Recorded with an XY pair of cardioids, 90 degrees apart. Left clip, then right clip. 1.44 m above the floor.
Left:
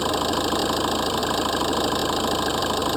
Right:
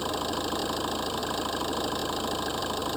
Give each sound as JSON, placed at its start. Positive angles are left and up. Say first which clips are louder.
{"t": 0.0, "sound": "an engine running", "louder": "left 7 dB", "azimuth_deg": 60}